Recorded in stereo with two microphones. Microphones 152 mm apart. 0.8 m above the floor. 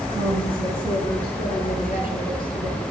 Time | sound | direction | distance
0.1 | a woman speaking | 75° right (ahead or behind) | 7.5 m